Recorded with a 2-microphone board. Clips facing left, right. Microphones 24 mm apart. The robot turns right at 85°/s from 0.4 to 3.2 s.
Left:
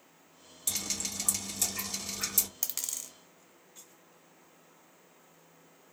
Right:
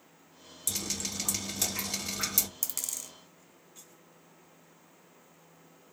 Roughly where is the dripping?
Behind left.